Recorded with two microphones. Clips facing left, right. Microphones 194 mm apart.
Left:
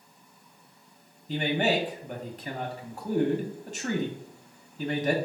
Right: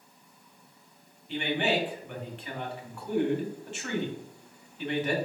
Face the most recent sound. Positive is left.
turn(degrees=40)  # may be behind; listen again after turning